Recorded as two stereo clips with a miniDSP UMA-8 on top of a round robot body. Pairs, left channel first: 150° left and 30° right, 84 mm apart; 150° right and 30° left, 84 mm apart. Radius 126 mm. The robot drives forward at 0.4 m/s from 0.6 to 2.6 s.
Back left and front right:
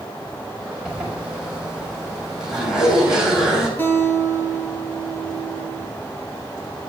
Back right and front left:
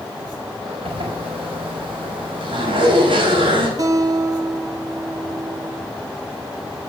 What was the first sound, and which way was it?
A zipper, 50° left.